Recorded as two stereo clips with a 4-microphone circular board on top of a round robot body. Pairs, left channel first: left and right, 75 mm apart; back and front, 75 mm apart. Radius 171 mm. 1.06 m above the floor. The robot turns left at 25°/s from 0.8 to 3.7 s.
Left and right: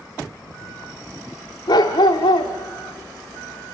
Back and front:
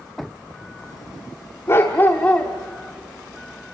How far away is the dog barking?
About 0.8 m.